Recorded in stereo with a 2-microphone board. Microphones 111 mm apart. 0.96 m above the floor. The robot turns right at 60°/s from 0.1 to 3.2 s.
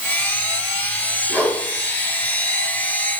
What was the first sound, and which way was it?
A whoosh, 20° right (ahead or behind).